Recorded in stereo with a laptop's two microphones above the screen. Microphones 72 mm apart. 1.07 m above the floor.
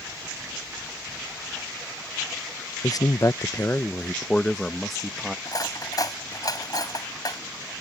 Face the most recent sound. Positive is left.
turn(degrees=55)  # may be behind; listen again after turning